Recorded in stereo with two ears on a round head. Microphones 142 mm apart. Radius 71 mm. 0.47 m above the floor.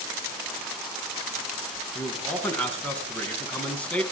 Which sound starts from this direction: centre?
A man speaking, at 1.9 s.